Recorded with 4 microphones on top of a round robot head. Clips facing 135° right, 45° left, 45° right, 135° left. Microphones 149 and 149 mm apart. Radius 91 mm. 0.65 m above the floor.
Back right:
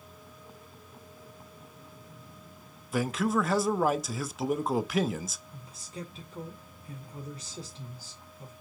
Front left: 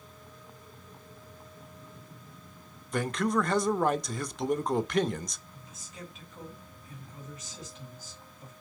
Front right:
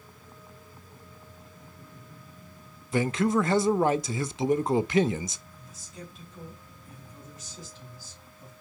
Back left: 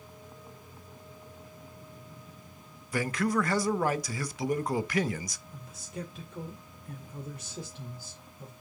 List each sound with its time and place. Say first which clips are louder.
2.9 s a man speaking: even, front right 4 dB; 55° right, 0.6 m
5.5 s a man speaking: back right 5 dB, back left 6 dB; 165° left, 2 m